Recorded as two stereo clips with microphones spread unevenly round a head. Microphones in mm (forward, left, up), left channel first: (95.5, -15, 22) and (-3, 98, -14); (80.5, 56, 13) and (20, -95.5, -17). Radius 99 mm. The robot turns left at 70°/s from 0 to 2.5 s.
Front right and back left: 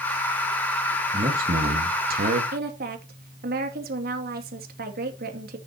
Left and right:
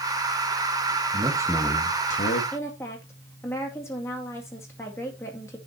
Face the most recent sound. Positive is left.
turn(degrees=150)